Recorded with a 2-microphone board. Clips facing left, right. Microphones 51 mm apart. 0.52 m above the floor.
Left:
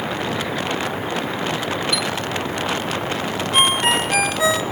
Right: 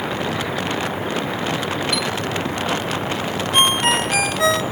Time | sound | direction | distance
1.9 | a chime | 55° right (ahead or behind) | 0.9 m
3.5 | a ringtone | 5° left (ahead or behind) | 0.9 m